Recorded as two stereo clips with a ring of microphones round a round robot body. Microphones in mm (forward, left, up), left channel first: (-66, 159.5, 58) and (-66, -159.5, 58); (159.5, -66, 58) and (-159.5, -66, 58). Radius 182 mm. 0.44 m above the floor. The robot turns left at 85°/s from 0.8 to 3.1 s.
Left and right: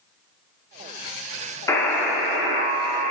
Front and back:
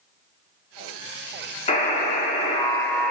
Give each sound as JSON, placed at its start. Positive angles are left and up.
{"t": 1.7, "sound": "a buzzer", "azimuth_deg": 30, "distance_m": 0.8}